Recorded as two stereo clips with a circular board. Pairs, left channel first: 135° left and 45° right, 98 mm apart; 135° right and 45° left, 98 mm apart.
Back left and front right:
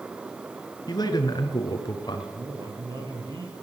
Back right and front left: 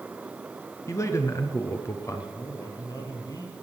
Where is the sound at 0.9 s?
170° left, 2.5 m.